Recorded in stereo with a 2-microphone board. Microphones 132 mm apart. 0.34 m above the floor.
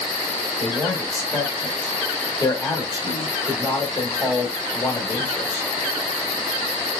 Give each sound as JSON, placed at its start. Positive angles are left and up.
{"t": 0.6, "sound": "a man speaking", "side_deg": 25, "distance_m": 1.1}